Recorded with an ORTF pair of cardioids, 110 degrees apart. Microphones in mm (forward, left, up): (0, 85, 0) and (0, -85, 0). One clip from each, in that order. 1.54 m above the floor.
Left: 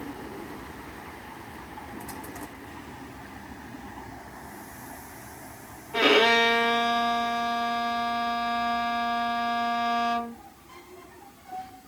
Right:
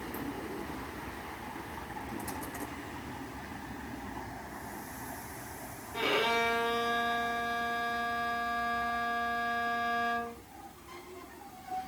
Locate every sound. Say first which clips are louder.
5.9 s a violin: left 9 dB; 60° left, 0.9 m